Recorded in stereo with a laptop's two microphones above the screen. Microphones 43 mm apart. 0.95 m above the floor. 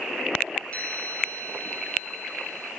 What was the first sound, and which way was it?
A chime, 35° left (ahead or behind).